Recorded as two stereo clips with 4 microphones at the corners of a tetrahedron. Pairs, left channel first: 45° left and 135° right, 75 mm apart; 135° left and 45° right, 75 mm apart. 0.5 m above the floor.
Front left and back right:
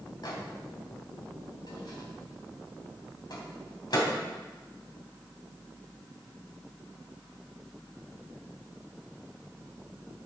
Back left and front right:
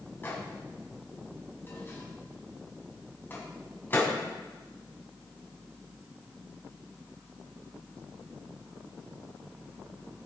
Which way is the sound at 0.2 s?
75° left.